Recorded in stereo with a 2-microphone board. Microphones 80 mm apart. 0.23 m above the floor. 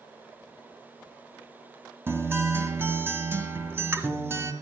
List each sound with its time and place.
2.1 s a guitar: 30° right (ahead or behind), 1.6 m